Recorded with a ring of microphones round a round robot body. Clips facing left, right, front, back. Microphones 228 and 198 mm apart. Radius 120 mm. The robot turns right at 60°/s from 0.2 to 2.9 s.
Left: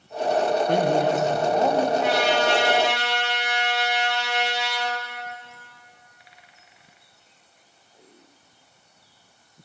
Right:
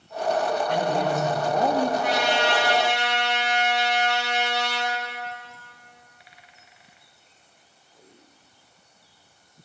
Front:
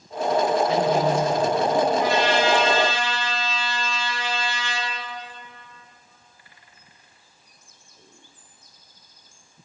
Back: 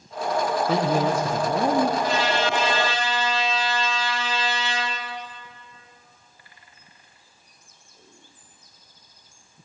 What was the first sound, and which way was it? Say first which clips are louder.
A man speaking: left 4 dB, front 1 dB; 130° left.